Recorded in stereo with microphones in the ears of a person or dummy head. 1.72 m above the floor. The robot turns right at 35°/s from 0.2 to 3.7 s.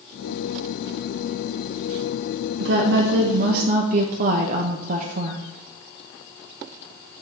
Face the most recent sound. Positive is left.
turn(degrees=-55)